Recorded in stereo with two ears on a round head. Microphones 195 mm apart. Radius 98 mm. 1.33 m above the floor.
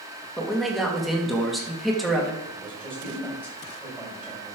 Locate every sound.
0.4 s a man speaking: centre (ahead or behind), 2 m
2.4 s a man speaking: 10° right (ahead or behind), 6 m